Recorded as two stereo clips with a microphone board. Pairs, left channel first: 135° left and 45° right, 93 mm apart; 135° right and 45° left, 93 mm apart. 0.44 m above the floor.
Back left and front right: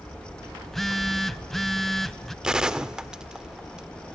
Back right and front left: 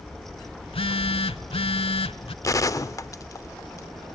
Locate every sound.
0.6 s a phone buzzing: 140° right, 0.7 m
2.4 s a gunshot: 125° right, 0.7 m